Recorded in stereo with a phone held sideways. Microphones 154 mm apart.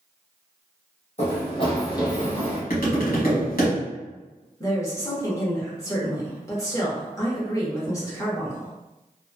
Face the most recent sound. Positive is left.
turn(degrees=20)  # may be behind; listen again after turning